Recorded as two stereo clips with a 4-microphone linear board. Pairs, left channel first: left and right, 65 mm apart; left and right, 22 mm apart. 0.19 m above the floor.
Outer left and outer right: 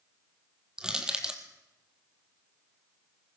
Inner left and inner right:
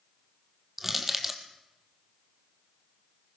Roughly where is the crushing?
Centre.